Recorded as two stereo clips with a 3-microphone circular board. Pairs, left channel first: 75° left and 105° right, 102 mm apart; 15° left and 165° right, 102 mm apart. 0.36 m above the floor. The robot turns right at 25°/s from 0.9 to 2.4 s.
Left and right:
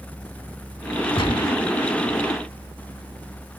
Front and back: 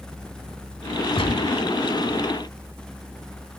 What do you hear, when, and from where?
1.2 s a gunshot: 40° left, 0.9 m; by 1.6 s 55° left, 0.9 m